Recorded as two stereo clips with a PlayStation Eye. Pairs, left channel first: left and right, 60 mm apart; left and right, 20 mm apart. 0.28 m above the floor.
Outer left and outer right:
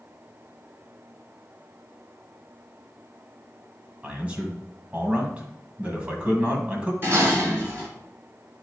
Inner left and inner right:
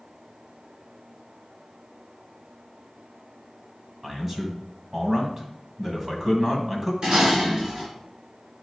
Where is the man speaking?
20° right (ahead or behind), 1.6 m.